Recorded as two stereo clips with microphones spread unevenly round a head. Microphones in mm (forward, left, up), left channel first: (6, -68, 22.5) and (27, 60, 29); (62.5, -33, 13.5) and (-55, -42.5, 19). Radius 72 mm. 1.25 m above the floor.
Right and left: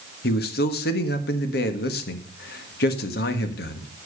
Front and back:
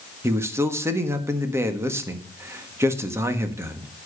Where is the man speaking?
105° right, 1.6 m.